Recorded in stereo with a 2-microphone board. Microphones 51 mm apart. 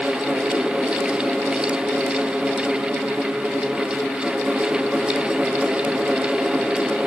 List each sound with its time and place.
Only background noise.